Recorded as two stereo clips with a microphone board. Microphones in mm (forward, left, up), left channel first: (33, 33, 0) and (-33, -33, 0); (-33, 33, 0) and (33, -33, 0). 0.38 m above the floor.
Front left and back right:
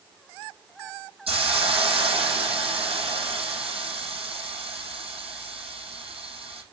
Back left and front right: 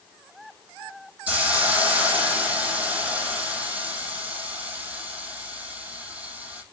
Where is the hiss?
120° right, 5.5 m.